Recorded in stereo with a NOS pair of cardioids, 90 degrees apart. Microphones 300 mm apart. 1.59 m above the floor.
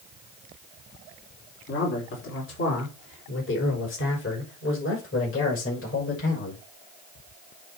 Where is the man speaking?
40° left, 4.5 m; by 6.6 s 45° left, 7.5 m.